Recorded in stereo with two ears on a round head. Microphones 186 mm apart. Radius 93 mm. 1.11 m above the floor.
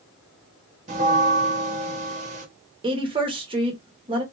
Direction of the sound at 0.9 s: 35° right (ahead or behind).